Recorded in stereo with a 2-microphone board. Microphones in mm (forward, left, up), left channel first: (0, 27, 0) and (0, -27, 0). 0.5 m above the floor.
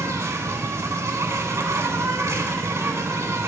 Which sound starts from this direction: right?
An insect, at 0.0 s.